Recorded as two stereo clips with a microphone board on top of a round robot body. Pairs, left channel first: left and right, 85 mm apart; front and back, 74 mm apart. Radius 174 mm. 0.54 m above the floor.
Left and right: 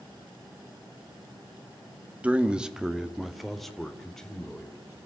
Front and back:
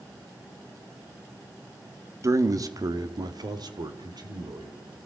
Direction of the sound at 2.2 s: 155° right.